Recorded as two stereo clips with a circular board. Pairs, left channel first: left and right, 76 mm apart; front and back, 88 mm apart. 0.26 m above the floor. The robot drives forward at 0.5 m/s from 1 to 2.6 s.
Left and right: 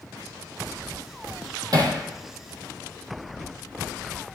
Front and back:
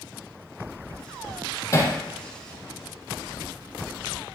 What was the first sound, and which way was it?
Hammering, 55° right.